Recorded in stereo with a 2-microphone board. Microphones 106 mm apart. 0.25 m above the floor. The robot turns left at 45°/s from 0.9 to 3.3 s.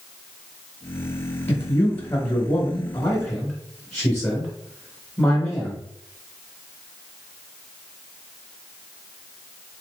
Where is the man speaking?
20° left (ahead or behind), 0.9 m; by 5.8 s 5° left (ahead or behind), 0.9 m.